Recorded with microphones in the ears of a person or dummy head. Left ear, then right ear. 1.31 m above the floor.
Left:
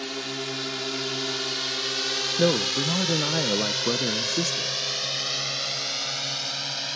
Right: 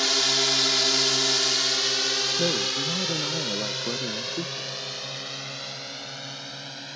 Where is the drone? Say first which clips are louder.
Right 10 dB; 45° right (ahead or behind); by 7.0 s 35° left (ahead or behind).